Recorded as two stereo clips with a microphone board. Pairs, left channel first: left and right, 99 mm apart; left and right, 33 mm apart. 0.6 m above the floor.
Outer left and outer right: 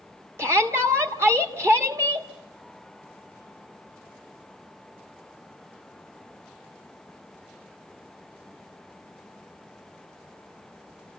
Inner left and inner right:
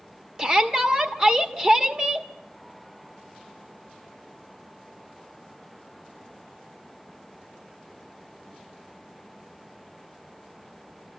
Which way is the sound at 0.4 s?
25° right (ahead or behind).